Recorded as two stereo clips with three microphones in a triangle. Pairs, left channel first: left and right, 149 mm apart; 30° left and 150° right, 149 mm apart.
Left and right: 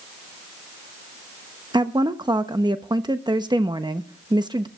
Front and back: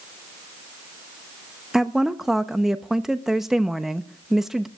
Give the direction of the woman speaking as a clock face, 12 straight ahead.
2 o'clock.